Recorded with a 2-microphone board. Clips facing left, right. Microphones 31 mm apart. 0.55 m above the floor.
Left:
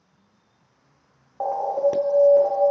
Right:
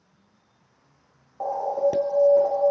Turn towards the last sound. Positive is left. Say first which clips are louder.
# left 2 dB
turn(degrees=35)  # may be behind; listen again after turning